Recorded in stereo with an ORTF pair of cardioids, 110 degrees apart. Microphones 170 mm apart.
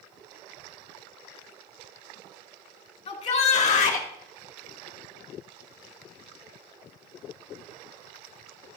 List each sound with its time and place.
3.1 s a shout: 35° left, 3 m; by 4.1 s 50° left, 2.5 m